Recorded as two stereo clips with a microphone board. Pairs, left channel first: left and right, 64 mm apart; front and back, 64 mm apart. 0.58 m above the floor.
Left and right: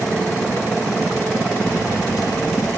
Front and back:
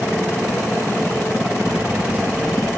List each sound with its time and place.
1.7 s keys jangling: 120° left, 9 m; by 2.7 s 115° left, 8 m